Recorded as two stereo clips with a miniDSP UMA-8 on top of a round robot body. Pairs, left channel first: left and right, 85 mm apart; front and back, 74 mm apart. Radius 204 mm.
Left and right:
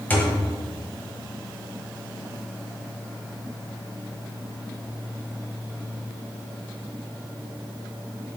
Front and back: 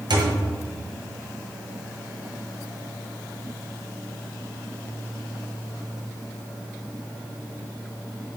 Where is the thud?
160° left, 1.4 m.